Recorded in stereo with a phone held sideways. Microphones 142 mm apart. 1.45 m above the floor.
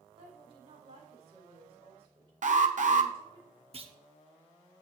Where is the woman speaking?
40° right (ahead or behind), 4.5 m.